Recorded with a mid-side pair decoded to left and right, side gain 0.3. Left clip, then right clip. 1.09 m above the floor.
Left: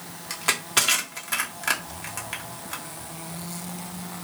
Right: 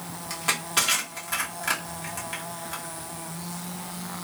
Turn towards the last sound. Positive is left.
turn(degrees=40)